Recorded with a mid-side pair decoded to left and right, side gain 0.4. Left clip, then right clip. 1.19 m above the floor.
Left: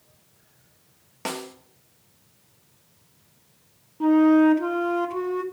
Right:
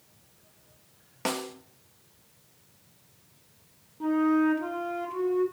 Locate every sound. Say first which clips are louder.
1.2 s a snare drum: right 1 dB; 5° right, 1.2 m
4.0 s a flute: left 7 dB; 55° left, 1.1 m